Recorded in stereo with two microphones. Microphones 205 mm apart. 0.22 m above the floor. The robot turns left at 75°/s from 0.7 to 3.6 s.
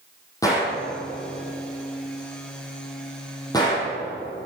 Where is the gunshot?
15° left (ahead or behind), 5 m; by 3.9 s 20° left (ahead or behind), 5 m.